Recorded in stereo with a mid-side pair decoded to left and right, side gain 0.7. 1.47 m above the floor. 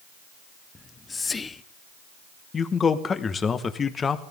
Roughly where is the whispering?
Ahead.